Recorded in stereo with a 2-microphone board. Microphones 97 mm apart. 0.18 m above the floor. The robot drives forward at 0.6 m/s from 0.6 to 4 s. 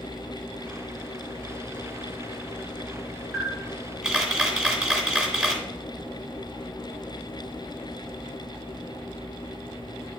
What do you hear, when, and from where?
3.3 s a camera shutter: 5° right (ahead or behind), 1.7 m